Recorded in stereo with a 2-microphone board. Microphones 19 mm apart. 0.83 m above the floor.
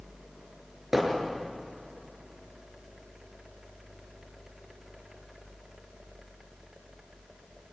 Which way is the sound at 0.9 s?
20° right (ahead or behind).